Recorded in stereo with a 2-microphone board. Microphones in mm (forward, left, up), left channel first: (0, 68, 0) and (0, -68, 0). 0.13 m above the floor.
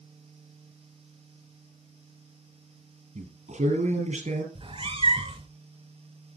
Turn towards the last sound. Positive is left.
turn(degrees=-45)  # may be behind; listen again after turning